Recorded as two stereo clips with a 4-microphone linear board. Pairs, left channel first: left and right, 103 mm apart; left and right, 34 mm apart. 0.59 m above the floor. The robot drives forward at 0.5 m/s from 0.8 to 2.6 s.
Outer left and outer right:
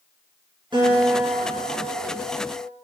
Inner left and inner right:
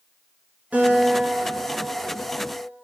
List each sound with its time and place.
0.7 s a guitar: 50° right (ahead or behind), 5.5 m; by 2.7 s 60° right (ahead or behind), 5 m